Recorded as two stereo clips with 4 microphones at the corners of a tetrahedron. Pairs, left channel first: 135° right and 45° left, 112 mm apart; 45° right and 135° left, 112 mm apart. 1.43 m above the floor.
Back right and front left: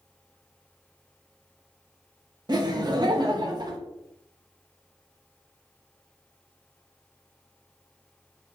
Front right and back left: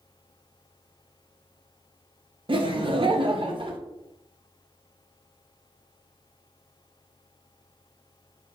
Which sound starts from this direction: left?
Laughter, at 2.5 s.